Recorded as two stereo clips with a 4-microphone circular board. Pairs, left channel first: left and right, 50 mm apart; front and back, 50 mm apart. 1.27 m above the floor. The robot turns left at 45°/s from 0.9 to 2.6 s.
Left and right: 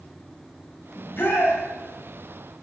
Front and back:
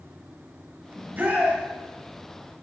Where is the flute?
I don't hear a flute.